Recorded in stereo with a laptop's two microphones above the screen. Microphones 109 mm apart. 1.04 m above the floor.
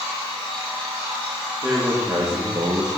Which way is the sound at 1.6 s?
10° right (ahead or behind).